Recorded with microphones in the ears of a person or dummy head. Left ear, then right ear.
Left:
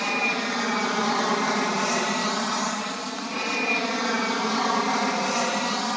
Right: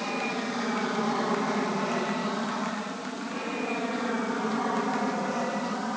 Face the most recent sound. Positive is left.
turn(degrees=65)  # may be behind; listen again after turning